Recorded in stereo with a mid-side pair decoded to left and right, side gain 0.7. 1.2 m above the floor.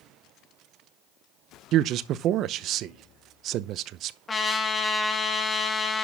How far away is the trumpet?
About 2 m.